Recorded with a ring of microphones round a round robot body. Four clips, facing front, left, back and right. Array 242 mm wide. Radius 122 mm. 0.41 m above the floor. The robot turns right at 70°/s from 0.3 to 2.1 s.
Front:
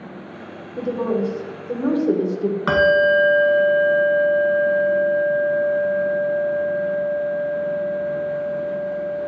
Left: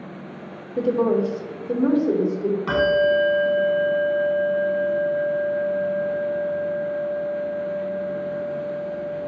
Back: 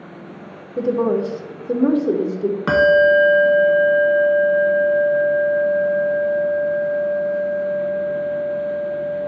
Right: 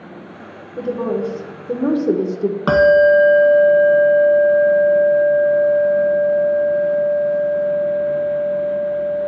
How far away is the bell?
About 0.9 m.